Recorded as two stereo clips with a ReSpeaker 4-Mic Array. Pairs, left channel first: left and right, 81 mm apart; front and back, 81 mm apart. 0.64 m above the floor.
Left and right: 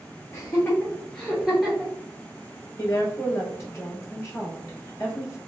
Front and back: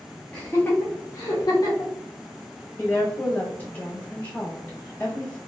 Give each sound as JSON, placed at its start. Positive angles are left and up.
{"t": 0.3, "sound": "laughter", "azimuth_deg": 70, "distance_m": 0.7}
{"t": 2.8, "sound": "a woman speaking", "azimuth_deg": 60, "distance_m": 1.4}